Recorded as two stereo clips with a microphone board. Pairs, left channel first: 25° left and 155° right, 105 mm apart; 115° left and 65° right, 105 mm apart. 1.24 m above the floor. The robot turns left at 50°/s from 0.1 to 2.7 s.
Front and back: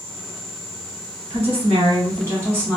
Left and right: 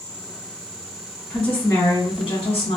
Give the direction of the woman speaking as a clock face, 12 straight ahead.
6 o'clock.